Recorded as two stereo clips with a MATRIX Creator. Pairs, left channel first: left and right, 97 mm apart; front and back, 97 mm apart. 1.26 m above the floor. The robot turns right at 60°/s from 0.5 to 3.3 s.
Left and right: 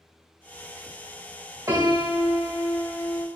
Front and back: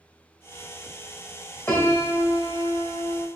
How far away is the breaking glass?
No breaking glass in this recording.